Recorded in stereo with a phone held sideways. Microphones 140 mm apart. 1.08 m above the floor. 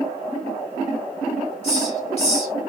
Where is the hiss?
45° left (ahead or behind), 3.5 m.